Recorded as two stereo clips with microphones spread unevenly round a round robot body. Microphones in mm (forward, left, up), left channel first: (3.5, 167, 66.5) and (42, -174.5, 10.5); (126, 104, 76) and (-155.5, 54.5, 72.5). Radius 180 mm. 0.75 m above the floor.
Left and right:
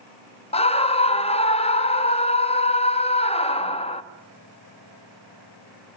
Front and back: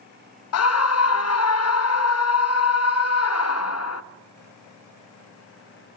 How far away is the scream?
About 1.3 m.